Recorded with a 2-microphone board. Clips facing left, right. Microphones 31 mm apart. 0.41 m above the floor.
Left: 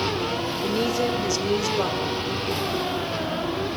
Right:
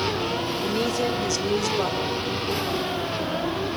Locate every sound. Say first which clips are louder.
0.6 s a woman speaking: left 2 dB; 5° left (ahead or behind), 1.3 m